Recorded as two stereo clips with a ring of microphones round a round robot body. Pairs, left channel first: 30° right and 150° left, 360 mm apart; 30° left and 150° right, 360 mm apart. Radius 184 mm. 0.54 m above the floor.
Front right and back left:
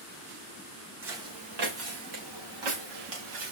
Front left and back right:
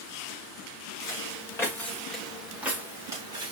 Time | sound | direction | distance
1.0 | footsteps | 110° left | 5 m